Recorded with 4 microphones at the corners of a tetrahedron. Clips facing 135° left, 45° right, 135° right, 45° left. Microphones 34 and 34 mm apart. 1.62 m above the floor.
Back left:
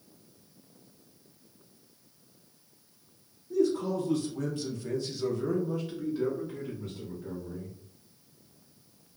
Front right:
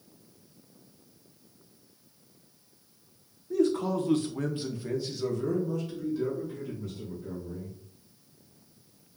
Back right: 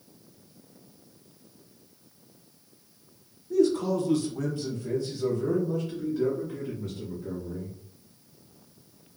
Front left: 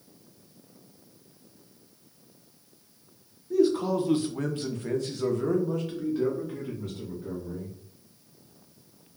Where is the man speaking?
30° right, 0.8 m; by 7.8 s 90° left, 1.7 m.